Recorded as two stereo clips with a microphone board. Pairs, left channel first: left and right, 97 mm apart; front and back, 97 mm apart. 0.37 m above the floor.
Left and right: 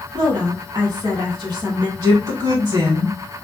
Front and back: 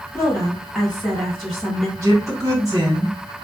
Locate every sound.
0.1 s a woman speaking: 90° right, 2 m
2.0 s a woman speaking: 135° right, 2 m